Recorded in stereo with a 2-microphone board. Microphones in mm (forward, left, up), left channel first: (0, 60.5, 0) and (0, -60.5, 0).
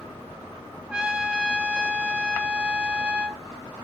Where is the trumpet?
10° right (ahead or behind), 0.6 m.